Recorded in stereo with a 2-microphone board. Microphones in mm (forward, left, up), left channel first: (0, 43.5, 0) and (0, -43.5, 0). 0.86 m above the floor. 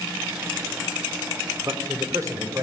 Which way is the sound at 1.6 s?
40° right (ahead or behind).